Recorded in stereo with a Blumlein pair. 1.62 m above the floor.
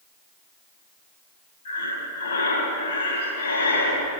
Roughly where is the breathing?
Ahead left.